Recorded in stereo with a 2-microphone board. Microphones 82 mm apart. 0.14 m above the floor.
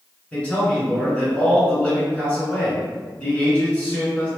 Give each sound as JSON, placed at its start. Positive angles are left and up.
{"t": 0.3, "sound": "a man speaking", "side_deg": 15, "distance_m": 1.9}